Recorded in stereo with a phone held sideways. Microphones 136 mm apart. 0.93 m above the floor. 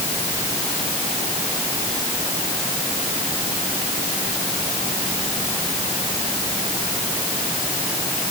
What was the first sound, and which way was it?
Only background noise.